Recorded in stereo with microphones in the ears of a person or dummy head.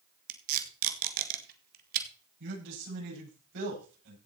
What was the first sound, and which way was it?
Tape being pulled, 50° right (ahead or behind).